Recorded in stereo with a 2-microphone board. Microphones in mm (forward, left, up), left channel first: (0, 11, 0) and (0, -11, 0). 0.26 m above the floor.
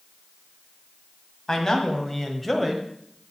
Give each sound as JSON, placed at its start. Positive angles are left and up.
{"t": 1.5, "sound": "a man speaking", "side_deg": 30, "distance_m": 1.4}